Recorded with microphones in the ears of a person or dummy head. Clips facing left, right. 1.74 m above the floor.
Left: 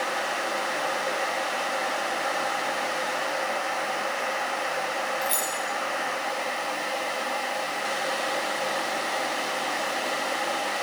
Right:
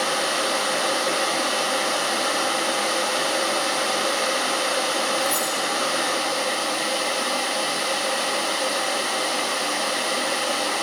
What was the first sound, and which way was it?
Keys jangling, 20° left (ahead or behind).